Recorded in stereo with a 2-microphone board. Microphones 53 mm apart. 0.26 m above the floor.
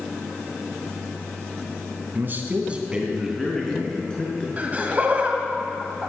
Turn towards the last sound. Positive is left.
turn(degrees=-30)  # may be behind; listen again after turning